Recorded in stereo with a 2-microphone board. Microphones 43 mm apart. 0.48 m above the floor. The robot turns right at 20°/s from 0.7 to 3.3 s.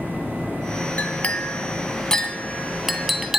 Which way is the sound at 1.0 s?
40° left (ahead or behind).